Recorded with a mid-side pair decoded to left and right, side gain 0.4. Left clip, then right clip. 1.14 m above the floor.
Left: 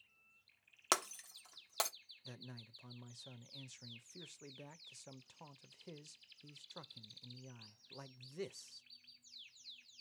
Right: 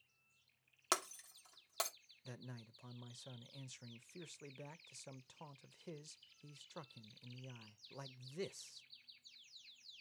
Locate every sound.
0.9 s breaking glass: 35° left, 1.0 m
2.2 s a man speaking: 15° right, 0.7 m